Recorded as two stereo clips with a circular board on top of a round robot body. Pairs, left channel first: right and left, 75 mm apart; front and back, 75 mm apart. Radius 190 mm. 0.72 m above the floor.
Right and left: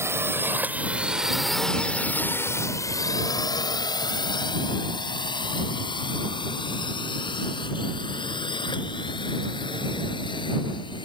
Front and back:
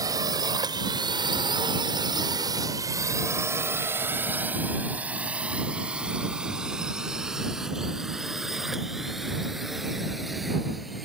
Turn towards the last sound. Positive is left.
turn(degrees=-90)